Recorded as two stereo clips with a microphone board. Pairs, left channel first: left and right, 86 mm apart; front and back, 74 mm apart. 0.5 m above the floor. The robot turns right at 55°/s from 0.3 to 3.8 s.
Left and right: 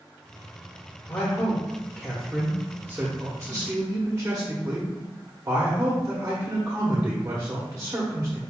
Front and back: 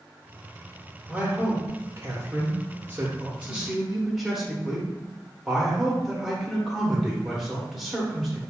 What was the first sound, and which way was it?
A man speaking, 125° left.